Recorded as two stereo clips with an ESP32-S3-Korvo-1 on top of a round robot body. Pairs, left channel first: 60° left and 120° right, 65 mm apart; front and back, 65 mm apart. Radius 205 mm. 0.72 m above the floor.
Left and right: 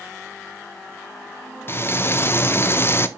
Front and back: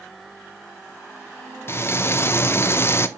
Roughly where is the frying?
Ahead left.